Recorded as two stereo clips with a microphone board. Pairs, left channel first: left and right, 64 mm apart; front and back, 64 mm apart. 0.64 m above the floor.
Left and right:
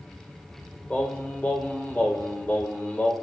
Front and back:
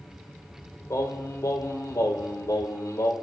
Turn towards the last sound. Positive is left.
turn(degrees=25)